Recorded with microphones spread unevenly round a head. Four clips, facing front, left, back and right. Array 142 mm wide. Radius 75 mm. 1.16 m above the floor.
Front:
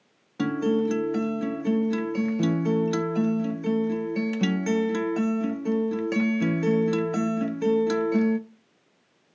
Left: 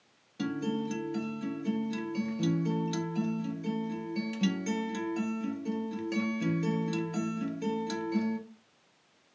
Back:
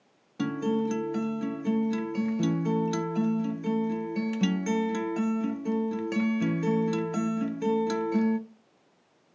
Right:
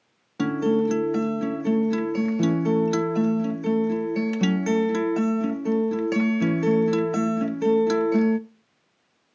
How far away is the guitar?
About 0.6 m.